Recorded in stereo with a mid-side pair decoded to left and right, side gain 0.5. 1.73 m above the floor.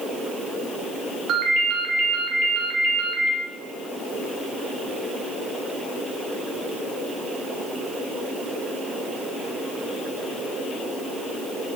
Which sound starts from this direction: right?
A ringtone, at 1.3 s.